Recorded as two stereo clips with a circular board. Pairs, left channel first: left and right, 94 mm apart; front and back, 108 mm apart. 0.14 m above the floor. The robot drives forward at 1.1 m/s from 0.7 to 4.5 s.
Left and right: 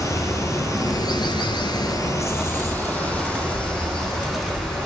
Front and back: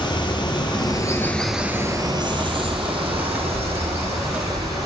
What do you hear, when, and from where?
0.0 s running water: 40° left, 1.1 m; by 4.9 s 170° left, 3.5 m